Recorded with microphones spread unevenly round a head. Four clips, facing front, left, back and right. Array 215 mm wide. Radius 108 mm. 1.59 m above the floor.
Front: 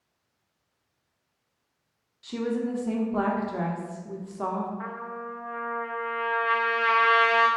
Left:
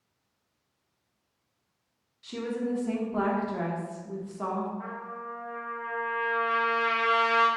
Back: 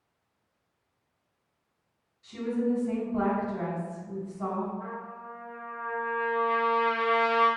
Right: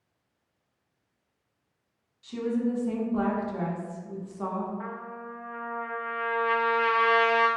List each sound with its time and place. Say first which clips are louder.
2.2 s a woman speaking: right 3 dB, even; 20° left, 0.8 m
4.8 s a trumpet: even, front 4 dB; 5° right, 0.6 m